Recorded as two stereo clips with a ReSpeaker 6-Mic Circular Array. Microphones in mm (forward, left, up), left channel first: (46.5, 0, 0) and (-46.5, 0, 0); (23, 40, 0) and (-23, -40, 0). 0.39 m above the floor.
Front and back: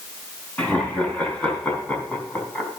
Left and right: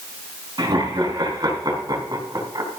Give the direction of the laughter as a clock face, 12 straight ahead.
3 o'clock.